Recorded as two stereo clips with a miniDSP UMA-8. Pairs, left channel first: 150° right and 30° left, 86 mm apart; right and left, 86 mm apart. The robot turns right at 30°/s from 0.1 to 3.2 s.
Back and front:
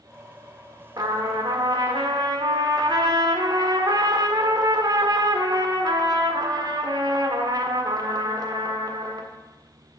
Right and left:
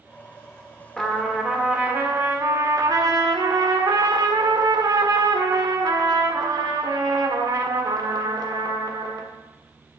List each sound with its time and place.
1.0 s a trumpet: 5° right, 1.7 m; by 9.3 s 60° left, 1.7 m